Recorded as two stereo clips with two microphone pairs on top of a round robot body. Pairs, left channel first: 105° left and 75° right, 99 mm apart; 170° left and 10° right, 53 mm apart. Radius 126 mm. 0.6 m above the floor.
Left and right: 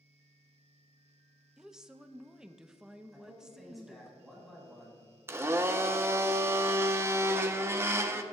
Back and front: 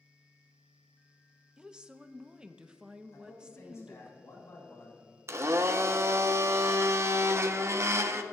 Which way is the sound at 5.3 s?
15° right.